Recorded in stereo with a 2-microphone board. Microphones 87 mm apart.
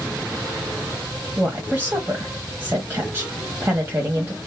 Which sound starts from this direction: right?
A woman speaking, at 1.4 s.